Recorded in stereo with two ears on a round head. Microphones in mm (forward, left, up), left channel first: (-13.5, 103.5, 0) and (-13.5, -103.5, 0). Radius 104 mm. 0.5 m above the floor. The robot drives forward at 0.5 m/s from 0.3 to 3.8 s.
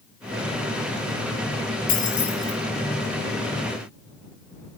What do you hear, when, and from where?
1.9 s keys jangling: 40° left (ahead or behind), 8 m; by 2.5 s 35° left (ahead or behind), 8.5 m